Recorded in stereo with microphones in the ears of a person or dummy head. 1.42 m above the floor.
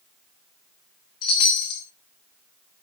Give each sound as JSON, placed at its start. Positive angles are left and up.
{"t": 1.2, "sound": "a chime", "side_deg": 25, "distance_m": 0.9}